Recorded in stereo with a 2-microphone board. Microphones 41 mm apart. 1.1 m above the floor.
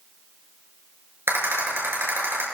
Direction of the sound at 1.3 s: 70° right (ahead or behind).